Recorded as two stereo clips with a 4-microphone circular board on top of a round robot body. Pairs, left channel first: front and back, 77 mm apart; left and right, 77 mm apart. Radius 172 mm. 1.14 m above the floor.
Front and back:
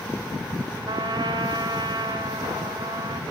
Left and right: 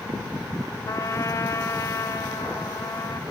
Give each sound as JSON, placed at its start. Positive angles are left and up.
{"t": 0.9, "sound": "a trumpet", "azimuth_deg": 145, "distance_m": 1.4}